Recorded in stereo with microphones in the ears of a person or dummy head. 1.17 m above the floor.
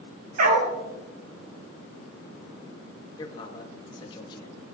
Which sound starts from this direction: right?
A dog barking, at 0.4 s.